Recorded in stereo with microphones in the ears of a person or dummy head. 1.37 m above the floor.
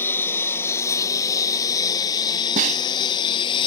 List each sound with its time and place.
0.0 s a lawn mower: 15° left (ahead or behind); by 3.7 s 30° left (ahead or behind)
2.6 s a snare drum: 45° right (ahead or behind)